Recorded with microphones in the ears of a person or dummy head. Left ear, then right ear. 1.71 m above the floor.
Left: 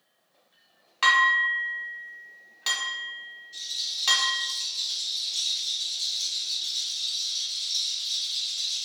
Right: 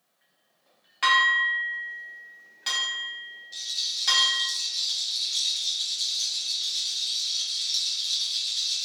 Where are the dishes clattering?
10° left (ahead or behind), 1.3 m.